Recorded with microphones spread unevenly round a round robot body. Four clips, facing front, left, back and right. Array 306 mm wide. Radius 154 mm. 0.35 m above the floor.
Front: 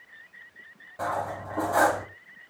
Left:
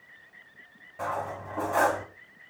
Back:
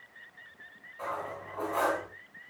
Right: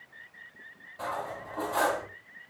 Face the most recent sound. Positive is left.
turn(degrees=20)